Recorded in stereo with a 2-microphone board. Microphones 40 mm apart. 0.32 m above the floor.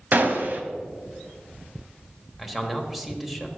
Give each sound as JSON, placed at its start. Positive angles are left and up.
{"t": 0.1, "sound": "a gunshot", "side_deg": -50, "distance_m": 0.8}
{"t": 2.4, "sound": "a man speaking", "side_deg": -5, "distance_m": 1.0}